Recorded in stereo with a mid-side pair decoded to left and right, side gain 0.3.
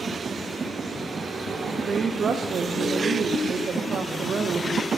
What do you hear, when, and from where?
1.9 s a woman speaking: 65° right, 0.7 m